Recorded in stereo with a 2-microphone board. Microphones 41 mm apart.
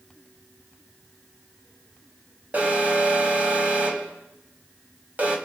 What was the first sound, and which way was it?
An alarm, 40° right (ahead or behind).